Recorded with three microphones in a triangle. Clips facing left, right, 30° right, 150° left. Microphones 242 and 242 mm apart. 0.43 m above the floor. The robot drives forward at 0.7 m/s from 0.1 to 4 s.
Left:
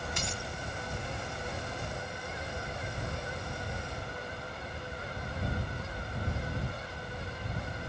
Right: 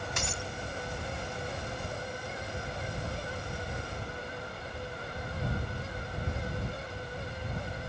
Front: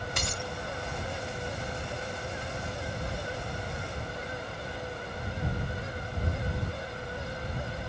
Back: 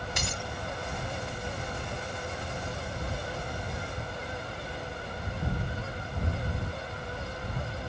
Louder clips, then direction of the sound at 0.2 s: Right 1 dB, front 1 dB; 65° right.